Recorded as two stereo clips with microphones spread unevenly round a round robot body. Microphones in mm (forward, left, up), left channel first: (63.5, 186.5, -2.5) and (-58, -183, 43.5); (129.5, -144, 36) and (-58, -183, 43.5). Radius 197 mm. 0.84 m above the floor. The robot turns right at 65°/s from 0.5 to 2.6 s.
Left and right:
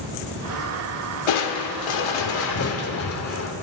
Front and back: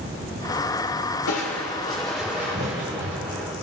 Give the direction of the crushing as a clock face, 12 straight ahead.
11 o'clock.